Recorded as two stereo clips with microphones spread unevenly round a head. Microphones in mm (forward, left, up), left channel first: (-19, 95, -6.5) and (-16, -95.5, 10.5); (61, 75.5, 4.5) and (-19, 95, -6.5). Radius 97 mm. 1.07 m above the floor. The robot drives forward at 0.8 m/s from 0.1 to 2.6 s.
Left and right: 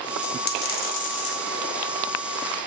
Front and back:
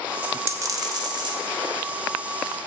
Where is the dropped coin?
90° left, 0.8 m; by 1.4 s 145° left, 1.3 m.